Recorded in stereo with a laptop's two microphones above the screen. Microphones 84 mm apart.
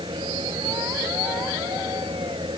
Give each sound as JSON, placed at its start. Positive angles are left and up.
{"t": 0.0, "sound": "a fan", "side_deg": -75}